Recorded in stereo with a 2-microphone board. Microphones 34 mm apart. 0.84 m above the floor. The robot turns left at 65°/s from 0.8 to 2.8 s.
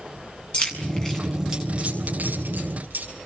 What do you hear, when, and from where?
0.5 s keys jangling: 35° left (ahead or behind), 6.5 m; by 3.1 s 85° right, 6.5 m